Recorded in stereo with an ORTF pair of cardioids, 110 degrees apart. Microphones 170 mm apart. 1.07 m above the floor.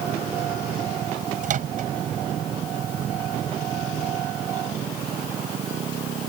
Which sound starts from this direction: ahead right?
A microwave, at 1.4 s.